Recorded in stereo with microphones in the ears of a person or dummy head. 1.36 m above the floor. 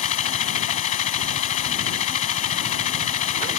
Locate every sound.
0.0 s a machine running: 45° left (ahead or behind)